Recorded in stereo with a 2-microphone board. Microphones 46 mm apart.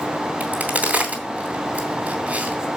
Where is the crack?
35° right (ahead or behind), 3 m.